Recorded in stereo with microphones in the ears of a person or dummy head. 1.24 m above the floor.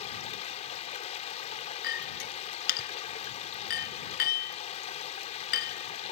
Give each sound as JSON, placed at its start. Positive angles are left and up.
{"t": 0.0, "sound": "running water", "side_deg": 40}
{"t": 1.8, "sound": "a clink", "side_deg": 55}